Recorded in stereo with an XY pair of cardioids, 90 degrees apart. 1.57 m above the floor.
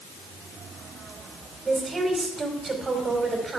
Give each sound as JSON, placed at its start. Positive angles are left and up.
{"t": 1.6, "sound": "a woman speaking", "azimuth_deg": -40, "distance_m": 4.5}